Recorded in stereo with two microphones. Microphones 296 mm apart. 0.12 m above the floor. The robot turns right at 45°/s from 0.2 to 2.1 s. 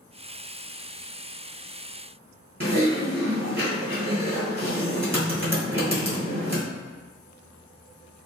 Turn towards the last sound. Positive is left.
turn(degrees=-45)  # may be behind; listen again after turning